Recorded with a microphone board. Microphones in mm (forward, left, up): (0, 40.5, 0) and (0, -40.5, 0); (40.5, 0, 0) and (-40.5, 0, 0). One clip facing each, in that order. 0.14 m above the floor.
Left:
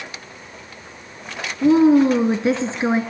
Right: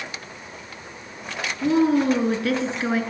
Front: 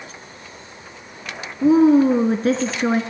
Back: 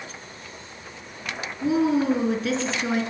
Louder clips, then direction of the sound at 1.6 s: Left 6 dB, front 8 dB; 30° left.